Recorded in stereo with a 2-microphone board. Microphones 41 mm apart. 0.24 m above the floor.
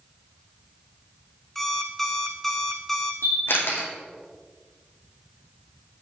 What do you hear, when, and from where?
1.6 s an alarm clock: 5° left (ahead or behind), 1.1 m
3.2 s a camera shutter: 70° left (ahead or behind), 2.5 m